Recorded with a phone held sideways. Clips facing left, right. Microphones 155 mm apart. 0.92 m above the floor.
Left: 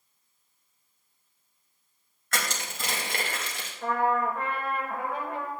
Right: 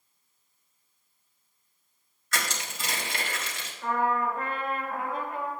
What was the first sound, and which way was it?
Crushing, 55° left (ahead or behind).